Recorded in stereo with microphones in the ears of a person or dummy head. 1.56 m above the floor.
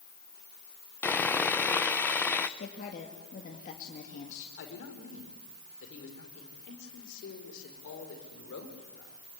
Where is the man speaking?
60° left (ahead or behind), 4.5 m.